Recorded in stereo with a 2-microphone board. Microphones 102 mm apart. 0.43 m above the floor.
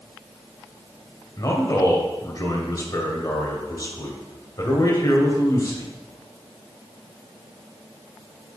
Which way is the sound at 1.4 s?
40° left (ahead or behind).